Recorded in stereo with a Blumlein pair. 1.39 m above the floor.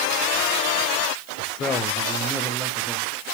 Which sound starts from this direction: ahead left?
A man speaking, at 1.4 s.